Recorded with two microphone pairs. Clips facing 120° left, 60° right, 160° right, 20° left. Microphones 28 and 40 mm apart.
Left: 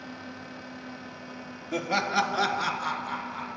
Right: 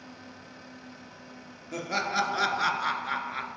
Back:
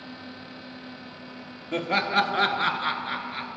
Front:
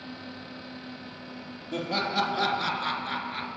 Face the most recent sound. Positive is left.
turn(degrees=-75)